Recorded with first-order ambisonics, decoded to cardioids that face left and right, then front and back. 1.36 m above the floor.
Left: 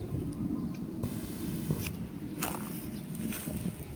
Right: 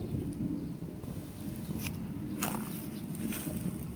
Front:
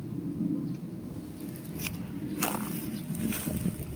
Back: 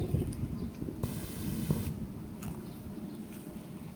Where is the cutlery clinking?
150° left, 2.5 m.